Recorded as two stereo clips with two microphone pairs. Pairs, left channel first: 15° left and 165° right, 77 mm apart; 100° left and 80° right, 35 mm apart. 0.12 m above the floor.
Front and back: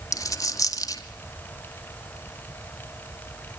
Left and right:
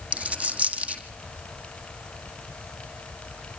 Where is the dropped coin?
35° right, 1.8 m.